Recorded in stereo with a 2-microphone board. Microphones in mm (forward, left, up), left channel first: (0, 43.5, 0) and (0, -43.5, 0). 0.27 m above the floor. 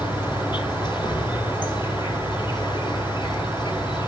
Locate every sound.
0.0 s an insect: 60° left (ahead or behind), 3 m